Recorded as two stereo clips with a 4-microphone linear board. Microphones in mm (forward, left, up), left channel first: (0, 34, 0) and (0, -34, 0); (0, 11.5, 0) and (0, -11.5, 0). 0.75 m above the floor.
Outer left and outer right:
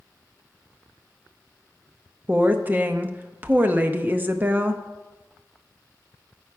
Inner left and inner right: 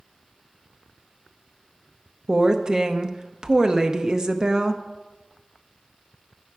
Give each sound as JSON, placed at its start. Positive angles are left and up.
{"t": 2.3, "sound": "a woman speaking", "side_deg": -25, "distance_m": 0.7}